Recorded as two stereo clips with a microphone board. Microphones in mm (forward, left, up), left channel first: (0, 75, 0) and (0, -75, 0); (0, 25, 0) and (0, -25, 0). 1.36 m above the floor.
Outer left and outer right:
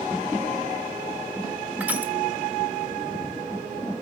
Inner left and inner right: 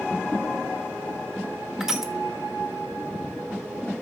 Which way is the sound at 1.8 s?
10° right (ahead or behind).